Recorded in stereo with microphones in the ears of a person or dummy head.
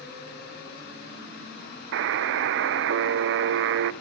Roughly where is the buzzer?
Right.